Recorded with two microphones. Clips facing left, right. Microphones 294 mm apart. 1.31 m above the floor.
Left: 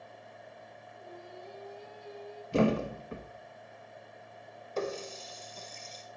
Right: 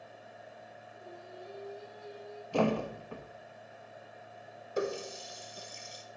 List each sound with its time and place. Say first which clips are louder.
0.9 s singing: left 1 dB; 25° right (ahead or behind), 1.7 m
2.5 s a thud: left 3 dB; 25° left (ahead or behind), 0.6 m
4.8 s a running tap: right 1 dB; 15° right (ahead or behind), 0.8 m